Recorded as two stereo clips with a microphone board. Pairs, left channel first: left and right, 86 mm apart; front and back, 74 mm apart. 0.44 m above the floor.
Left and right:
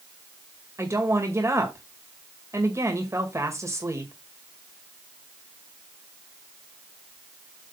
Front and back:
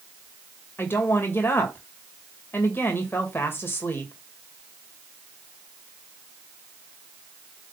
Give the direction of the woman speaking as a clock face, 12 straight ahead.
2 o'clock.